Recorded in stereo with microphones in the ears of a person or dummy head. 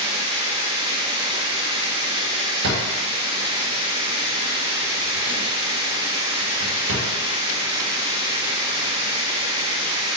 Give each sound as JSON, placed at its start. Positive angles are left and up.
{"t": 0.0, "sound": "running water", "side_deg": -25, "distance_m": 0.7}
{"t": 2.6, "sound": "a drawer", "side_deg": -60, "distance_m": 1.5}